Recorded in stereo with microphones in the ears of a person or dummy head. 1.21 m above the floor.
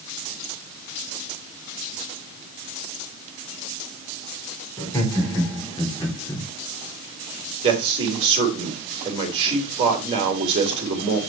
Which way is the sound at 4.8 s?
15° left (ahead or behind).